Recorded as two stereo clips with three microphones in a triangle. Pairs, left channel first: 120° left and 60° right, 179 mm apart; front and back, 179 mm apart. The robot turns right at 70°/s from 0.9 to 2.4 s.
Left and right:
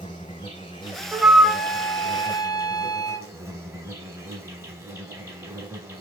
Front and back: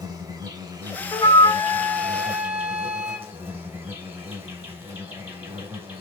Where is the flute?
10° left, 1.0 m; by 3.3 s 100° left, 1.0 m.